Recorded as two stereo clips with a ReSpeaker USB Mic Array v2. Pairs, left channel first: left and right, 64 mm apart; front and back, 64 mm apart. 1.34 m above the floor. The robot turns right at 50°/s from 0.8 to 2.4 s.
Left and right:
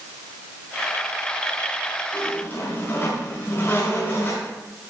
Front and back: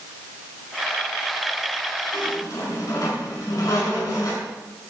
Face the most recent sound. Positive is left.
turn(degrees=35)